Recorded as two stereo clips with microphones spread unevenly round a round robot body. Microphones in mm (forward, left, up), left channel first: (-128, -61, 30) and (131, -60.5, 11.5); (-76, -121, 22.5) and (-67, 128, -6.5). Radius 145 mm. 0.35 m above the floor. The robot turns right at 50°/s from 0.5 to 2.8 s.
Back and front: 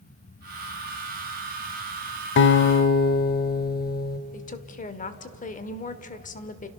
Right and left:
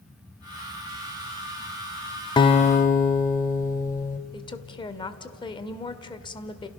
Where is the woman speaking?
155° right, 1.6 m.